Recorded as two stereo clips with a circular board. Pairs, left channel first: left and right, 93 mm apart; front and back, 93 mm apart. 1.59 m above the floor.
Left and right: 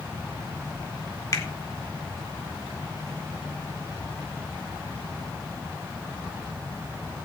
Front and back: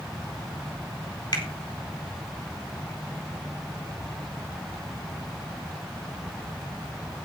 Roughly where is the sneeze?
I don't hear a sneeze.